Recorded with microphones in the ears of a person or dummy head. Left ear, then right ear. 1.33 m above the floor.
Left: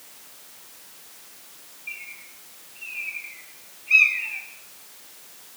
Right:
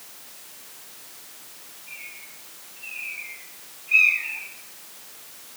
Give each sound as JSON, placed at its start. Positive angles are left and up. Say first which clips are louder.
{"t": 1.9, "sound": "a bird", "louder": "left 3 dB", "side_deg": 60, "distance_m": 1.8}